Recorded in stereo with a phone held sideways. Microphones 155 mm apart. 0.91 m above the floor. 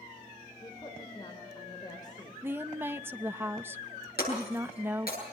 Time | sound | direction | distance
0.6 | a woman speaking | 30° left (ahead or behind) | 3 m
2.4 | a woman speaking | 15° right (ahead or behind) | 0.6 m
4.2 | breaking glass | 85° left | 8.5 m